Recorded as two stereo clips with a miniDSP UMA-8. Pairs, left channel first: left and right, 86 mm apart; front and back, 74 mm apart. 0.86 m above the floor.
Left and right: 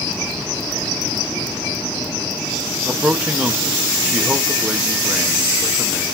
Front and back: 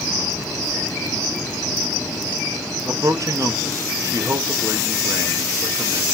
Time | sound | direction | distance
2.9 | a man speaking | 165° right | 1.0 m